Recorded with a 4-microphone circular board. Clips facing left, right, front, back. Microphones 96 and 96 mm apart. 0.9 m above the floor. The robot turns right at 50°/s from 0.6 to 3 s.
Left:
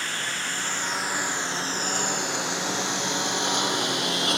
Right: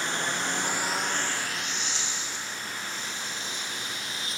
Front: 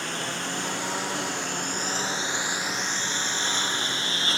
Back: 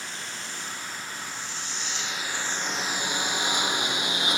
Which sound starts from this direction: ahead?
A lawn mower, at 0.0 s.